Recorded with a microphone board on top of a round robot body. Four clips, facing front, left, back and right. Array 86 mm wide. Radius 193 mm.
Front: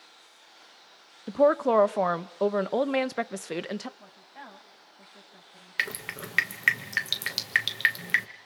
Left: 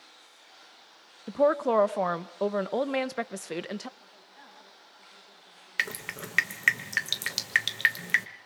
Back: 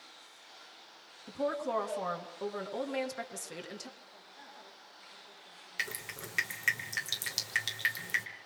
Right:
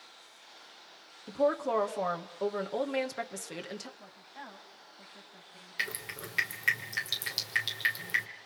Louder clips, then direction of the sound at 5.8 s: Left 5 dB, front 7 dB; 45° left.